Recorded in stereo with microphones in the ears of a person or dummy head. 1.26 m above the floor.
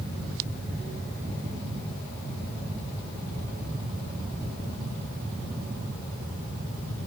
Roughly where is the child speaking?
No child speaking in this recording.